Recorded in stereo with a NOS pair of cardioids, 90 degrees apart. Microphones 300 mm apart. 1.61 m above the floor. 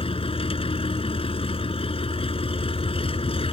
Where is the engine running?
20° left.